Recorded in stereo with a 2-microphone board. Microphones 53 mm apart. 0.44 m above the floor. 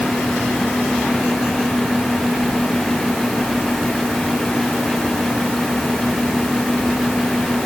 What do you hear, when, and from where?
Only background noise.